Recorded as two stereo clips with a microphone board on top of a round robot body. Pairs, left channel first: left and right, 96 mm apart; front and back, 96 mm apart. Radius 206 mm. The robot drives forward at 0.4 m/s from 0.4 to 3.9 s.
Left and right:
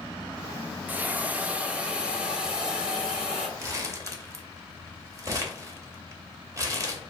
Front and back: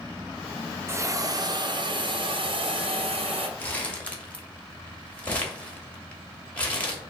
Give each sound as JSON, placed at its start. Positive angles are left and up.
{"t": 0.9, "sound": "a hiss", "azimuth_deg": -145, "distance_m": 0.7}
{"t": 3.6, "sound": "crumpling", "azimuth_deg": -60, "distance_m": 1.4}